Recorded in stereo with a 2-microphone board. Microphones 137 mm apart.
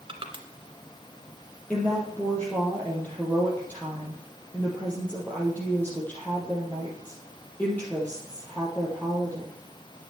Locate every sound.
0.1 s crushing: 40° right (ahead or behind), 2.0 m
1.7 s a woman speaking: 15° left (ahead or behind), 3.5 m